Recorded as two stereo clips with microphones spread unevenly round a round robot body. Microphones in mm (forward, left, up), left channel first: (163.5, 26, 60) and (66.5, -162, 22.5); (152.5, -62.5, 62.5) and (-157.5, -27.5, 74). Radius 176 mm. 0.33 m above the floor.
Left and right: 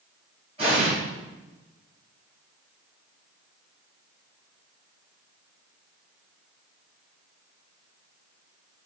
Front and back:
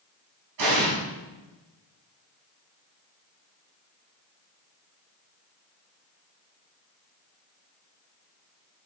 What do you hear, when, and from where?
0.6 s an explosion: 175° left, 3 m